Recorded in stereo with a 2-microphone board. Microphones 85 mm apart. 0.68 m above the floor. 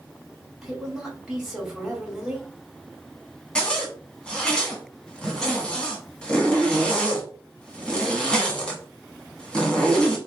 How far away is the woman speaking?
About 1.9 m.